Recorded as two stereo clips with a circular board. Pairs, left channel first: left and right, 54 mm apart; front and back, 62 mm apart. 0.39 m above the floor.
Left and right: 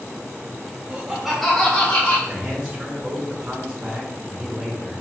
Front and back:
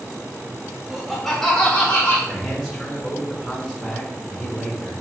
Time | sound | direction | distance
0.9 | laughter | 110° right | 1.1 m
2.3 | a man speaking | 80° right | 1.0 m